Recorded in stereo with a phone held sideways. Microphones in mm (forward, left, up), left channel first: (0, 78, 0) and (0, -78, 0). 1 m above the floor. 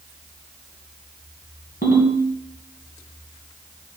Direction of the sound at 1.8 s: 75° left (ahead or behind).